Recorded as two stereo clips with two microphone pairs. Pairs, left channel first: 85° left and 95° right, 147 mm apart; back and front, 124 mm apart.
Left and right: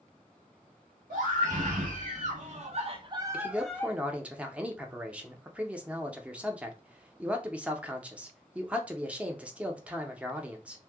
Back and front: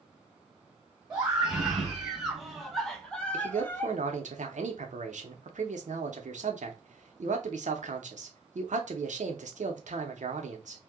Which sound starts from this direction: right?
A scream, at 1.1 s.